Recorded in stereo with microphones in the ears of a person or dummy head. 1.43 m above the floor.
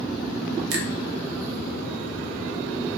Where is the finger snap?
70° right (ahead or behind), 0.8 m.